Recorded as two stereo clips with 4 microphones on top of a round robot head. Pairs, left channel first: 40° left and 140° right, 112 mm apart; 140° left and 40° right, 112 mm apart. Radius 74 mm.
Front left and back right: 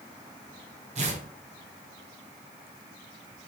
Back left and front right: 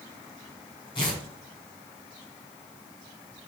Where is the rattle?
No rattle in this recording.